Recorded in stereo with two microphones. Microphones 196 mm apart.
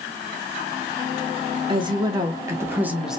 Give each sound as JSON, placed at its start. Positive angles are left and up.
{"t": 1.7, "sound": "a woman speaking", "side_deg": -25, "distance_m": 1.4}